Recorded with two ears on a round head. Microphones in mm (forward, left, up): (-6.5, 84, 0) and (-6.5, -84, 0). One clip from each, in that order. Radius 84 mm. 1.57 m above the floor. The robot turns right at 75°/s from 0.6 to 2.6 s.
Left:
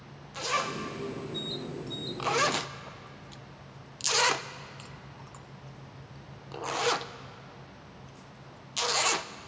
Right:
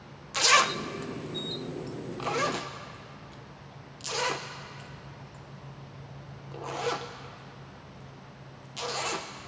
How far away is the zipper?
About 0.6 m.